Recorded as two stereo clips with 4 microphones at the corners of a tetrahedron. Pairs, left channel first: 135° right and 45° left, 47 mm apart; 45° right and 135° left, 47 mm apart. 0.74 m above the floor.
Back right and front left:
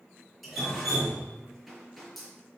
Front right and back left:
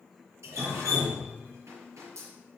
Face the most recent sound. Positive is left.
turn(degrees=135)